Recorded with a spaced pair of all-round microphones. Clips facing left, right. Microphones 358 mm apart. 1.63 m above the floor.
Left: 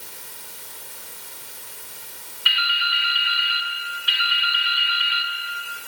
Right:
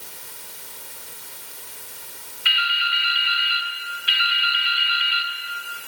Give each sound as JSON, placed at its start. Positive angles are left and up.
{"t": 2.5, "sound": "dripping", "side_deg": -35, "distance_m": 1.1}